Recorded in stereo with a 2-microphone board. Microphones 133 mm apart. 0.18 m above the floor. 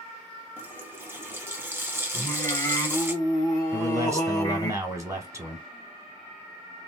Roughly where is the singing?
Left.